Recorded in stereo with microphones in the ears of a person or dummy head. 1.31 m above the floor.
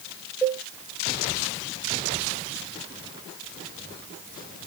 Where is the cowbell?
10° left (ahead or behind), 1.0 m.